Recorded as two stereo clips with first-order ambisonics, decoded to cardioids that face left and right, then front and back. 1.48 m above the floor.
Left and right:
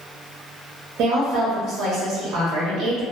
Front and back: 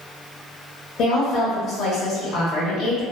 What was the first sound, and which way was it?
A woman speaking, 45° right.